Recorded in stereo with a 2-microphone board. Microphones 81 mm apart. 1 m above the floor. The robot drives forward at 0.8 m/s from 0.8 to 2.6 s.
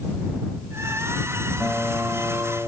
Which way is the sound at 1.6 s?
5° left (ahead or behind).